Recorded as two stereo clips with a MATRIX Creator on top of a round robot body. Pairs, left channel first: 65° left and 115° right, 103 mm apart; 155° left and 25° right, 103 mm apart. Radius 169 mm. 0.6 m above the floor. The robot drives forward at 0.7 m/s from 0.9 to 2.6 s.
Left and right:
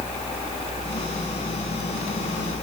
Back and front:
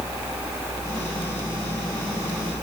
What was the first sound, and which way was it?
Only background noise.